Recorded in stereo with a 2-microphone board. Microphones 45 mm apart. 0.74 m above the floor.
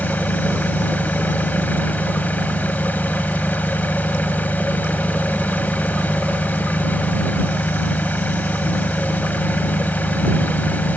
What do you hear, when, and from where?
0.0 s an engine running: 45° left (ahead or behind)